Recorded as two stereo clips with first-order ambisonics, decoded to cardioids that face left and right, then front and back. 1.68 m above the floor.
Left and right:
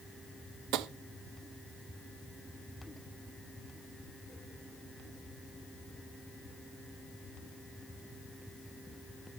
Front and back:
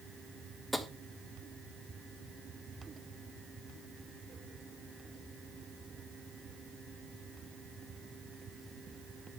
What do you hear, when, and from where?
0.7 s tapping: 90° right, 1.2 m